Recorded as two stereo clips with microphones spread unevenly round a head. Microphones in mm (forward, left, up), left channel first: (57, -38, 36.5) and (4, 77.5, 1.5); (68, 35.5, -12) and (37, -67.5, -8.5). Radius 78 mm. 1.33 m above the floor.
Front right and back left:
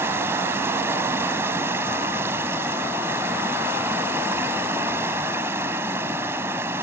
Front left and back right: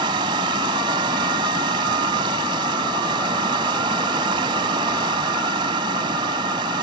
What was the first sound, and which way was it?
Running water, 165° right.